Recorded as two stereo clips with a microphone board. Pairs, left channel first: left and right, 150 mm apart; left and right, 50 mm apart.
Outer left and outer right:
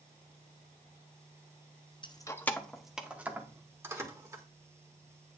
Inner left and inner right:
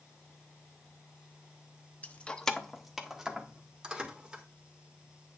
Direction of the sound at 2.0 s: 30° left (ahead or behind).